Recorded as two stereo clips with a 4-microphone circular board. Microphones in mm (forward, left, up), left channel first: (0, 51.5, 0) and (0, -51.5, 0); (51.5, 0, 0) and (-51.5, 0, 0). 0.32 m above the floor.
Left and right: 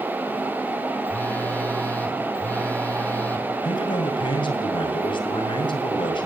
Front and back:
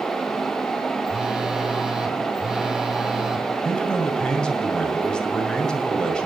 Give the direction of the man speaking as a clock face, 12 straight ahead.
9 o'clock.